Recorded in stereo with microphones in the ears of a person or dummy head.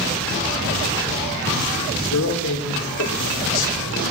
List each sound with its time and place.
2.0 s a man speaking: 70° left (ahead or behind), 3.5 m